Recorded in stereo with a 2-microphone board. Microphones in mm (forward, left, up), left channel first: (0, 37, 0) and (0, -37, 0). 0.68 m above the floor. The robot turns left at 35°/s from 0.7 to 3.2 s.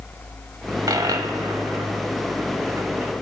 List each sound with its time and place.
0.9 s a dropped coin: 65° right (ahead or behind), 1.9 m; by 3.1 s 35° right (ahead or behind), 1.9 m